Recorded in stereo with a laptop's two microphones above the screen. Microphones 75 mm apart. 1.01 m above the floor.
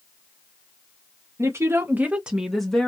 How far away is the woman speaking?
About 0.8 m.